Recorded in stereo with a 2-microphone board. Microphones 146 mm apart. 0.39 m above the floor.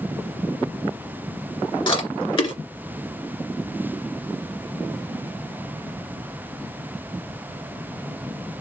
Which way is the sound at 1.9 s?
35° left (ahead or behind).